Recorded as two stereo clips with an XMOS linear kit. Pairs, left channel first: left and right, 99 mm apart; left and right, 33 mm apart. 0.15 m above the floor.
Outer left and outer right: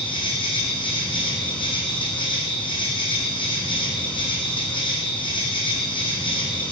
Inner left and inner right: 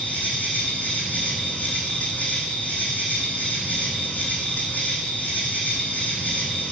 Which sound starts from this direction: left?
An insect, at 0.0 s.